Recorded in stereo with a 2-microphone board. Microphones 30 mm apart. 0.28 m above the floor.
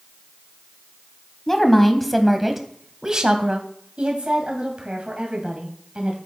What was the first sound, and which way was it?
A woman speaking, 15° left (ahead or behind).